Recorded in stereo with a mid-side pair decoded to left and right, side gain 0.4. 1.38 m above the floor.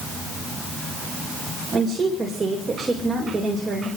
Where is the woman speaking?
40° right, 4.5 m.